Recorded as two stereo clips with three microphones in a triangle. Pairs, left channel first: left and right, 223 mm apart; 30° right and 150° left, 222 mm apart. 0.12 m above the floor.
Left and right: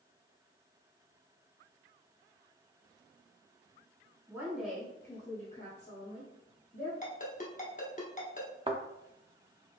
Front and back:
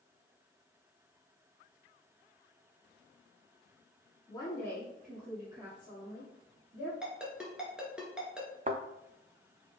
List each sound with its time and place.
4.3 s a woman speaking: 35° right, 1.4 m; by 6.9 s 110° left, 2.5 m
7.0 s a ringtone: 65° left, 1.0 m
8.7 s a thud: 150° right, 0.7 m